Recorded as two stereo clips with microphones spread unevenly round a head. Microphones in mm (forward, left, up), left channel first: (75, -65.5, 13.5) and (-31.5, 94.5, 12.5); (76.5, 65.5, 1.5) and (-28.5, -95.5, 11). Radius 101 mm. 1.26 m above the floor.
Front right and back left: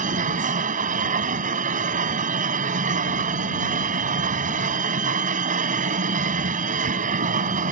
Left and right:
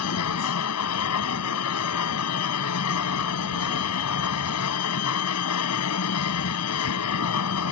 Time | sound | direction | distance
0.0 | a machine running | 75° left | ?